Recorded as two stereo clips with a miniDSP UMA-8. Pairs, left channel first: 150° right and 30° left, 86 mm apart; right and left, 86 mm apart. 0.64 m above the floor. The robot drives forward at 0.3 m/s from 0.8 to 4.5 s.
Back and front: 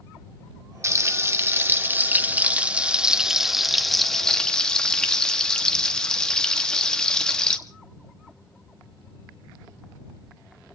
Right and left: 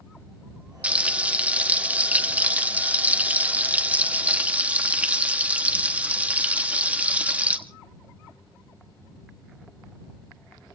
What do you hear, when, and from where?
0.8 s frying: 25° left, 1.3 m; by 7.6 s 140° left, 1.2 m